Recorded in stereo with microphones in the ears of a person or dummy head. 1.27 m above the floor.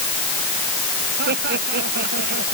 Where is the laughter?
55° right (ahead or behind).